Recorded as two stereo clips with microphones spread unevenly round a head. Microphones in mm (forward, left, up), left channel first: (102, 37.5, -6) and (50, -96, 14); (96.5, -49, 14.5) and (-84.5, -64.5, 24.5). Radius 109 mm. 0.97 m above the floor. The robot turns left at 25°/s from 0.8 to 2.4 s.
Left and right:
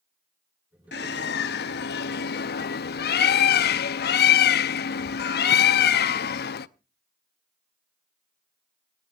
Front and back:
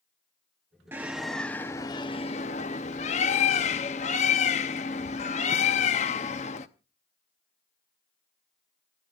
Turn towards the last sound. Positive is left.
turn(degrees=65)